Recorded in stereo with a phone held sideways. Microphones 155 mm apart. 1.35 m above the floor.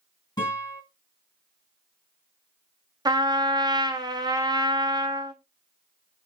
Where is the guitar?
30° left (ahead or behind), 2.5 m.